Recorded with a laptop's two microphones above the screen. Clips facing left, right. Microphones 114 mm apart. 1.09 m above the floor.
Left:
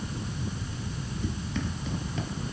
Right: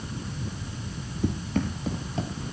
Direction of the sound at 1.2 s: 55° right (ahead or behind).